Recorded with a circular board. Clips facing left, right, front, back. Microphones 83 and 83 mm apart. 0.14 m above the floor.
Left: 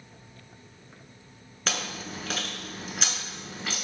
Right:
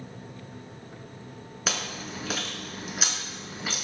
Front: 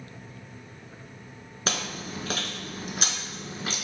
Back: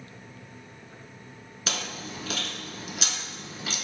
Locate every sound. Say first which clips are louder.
1.7 s chewing: even, front 3 dB; 10° right, 0.6 m